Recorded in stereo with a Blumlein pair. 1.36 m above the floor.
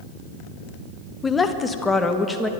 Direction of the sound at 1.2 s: 15° left.